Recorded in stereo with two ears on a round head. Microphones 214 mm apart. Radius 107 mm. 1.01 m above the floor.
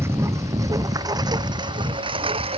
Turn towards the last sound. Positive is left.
turn(degrees=-25)  # may be behind; listen again after turning